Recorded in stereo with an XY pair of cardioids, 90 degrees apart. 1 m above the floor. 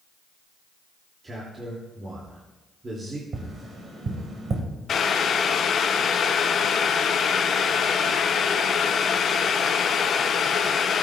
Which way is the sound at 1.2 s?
40° right.